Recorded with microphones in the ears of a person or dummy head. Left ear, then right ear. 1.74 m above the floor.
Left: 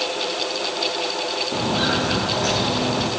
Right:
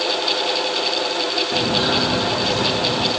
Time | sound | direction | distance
1.5 | footsteps | centre (ahead or behind) | 3.5 m